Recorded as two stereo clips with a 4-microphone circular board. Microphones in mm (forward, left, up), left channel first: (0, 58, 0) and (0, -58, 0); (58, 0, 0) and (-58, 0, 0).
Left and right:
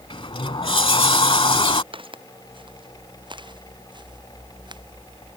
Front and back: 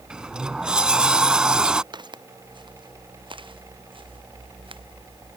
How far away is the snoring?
I don't hear snoring.